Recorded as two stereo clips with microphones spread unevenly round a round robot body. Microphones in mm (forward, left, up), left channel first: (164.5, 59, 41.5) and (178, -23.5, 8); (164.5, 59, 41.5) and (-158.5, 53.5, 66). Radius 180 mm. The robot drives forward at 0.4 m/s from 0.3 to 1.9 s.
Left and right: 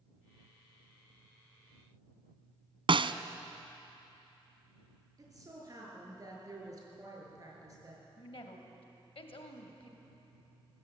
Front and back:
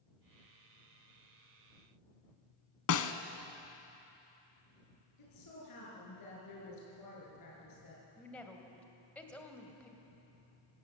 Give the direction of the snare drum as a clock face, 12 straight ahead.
2 o'clock.